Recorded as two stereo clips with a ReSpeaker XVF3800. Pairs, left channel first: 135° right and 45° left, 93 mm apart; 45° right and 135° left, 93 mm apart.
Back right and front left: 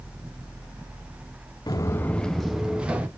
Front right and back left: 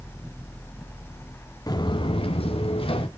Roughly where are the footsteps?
Right.